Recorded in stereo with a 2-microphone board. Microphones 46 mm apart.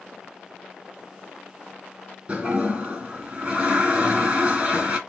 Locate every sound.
2.3 s a toilet flushing: 25° right (ahead or behind), 2.0 m